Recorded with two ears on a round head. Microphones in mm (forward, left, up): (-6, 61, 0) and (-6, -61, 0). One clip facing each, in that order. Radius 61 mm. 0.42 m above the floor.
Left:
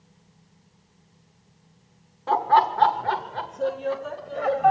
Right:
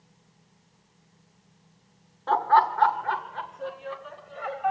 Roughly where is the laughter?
Centre.